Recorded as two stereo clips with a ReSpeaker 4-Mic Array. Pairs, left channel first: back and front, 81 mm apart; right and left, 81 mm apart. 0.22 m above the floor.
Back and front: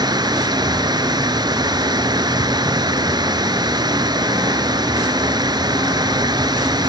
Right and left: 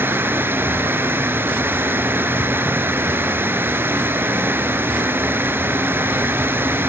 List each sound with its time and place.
0.0 s running water: 30° left, 1.0 m